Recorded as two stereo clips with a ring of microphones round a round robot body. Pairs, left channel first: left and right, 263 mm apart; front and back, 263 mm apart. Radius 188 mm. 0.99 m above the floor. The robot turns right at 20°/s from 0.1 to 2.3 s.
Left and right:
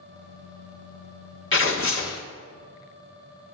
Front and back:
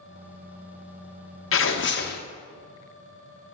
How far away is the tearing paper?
About 1.0 m.